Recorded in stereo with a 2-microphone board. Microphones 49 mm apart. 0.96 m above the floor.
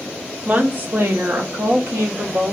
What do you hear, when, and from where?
0.5 s a woman speaking: 30° right (ahead or behind), 0.8 m; by 2.5 s 70° right (ahead or behind), 1.6 m